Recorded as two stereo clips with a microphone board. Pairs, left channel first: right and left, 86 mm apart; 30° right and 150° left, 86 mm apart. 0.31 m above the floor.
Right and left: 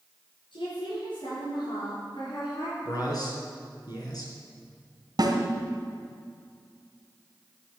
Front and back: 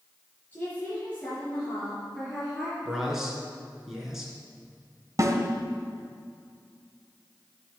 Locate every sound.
0.5 s a woman speaking: 100° right, 5 m; by 2.8 s 125° right, 5 m
2.9 s a man speaking: 125° right, 3.5 m
5.2 s a snare drum: 105° left, 1.7 m